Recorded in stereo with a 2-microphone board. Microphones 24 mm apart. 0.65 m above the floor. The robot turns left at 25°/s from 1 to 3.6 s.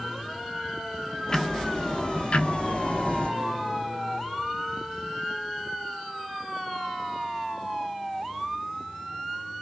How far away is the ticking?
About 0.7 m.